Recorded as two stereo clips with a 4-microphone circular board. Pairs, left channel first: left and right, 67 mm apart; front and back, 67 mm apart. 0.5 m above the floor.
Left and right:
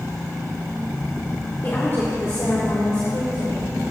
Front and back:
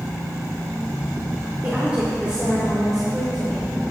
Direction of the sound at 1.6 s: 125° left.